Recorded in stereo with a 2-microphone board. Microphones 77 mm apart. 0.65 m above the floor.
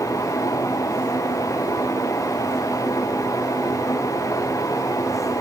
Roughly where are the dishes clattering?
No dishes clattering in this recording.